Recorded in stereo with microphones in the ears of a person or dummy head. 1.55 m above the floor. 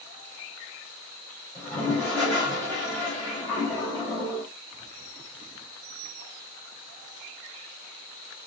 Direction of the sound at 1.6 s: 10° left (ahead or behind).